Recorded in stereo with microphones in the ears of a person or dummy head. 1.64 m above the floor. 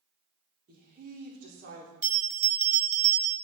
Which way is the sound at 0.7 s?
40° right (ahead or behind).